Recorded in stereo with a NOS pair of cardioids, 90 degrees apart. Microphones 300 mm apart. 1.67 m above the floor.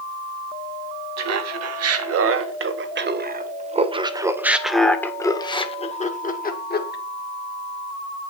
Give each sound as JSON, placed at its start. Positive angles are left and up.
{"t": 1.2, "sound": "laughter", "azimuth_deg": -60, "distance_m": 2.5}